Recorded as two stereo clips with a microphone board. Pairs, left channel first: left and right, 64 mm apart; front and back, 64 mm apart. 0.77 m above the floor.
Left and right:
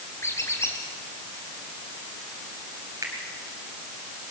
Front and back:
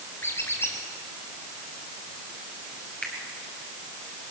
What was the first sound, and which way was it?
A squeak, 50° left.